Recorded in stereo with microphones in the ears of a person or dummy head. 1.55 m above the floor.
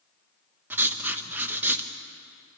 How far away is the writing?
About 1.1 m.